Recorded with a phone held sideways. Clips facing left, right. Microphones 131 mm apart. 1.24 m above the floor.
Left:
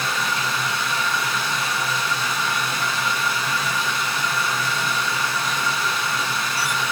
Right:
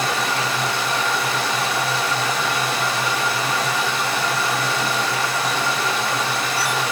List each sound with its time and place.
0.0 s running water: 75° right (ahead or behind), 3.5 m